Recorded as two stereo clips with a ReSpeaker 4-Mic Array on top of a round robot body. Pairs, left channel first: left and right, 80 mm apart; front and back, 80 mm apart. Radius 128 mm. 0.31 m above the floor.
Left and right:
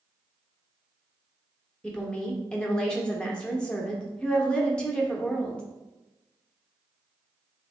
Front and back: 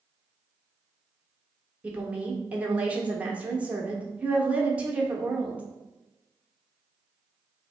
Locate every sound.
1.8 s a woman speaking: 145° left, 1.1 m